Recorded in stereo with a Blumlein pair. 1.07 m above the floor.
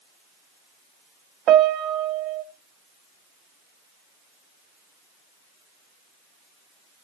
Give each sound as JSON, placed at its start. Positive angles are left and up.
{"t": 1.5, "sound": "a piano", "azimuth_deg": -30, "distance_m": 0.8}